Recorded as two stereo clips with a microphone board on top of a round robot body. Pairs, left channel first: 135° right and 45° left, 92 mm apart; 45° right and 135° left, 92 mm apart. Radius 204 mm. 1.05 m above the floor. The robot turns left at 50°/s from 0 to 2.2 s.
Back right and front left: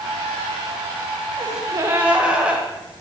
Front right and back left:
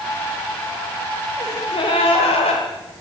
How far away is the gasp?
About 1.3 m.